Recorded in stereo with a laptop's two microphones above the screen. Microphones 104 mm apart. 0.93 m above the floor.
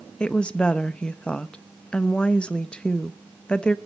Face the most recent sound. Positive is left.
turn(degrees=10)  # may be behind; listen again after turning